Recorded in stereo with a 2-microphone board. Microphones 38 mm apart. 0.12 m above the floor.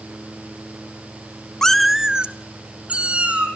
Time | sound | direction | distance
1.6 | a cat meowing | 15° left (ahead or behind) | 0.6 m